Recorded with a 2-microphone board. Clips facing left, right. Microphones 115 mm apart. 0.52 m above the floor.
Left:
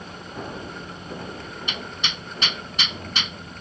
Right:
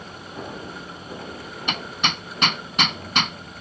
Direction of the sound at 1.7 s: 60° right (ahead or behind).